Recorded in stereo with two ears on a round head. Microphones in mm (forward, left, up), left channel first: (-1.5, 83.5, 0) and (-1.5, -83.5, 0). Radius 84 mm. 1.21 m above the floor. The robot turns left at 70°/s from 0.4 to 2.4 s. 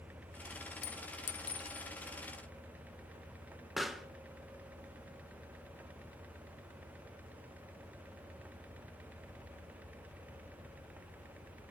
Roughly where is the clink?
Left.